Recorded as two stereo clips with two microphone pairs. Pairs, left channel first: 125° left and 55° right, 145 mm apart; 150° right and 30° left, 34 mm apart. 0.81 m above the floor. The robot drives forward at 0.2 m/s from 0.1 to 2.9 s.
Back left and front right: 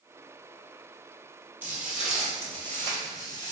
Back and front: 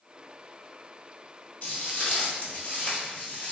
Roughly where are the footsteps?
Behind right.